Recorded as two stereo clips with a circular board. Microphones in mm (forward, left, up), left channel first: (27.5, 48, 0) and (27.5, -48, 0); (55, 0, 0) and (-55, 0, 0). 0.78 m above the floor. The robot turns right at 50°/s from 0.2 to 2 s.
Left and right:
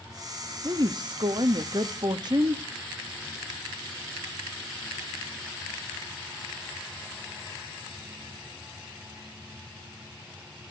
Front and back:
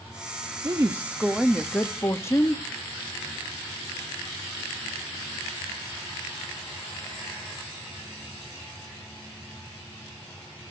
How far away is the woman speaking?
About 1.1 m.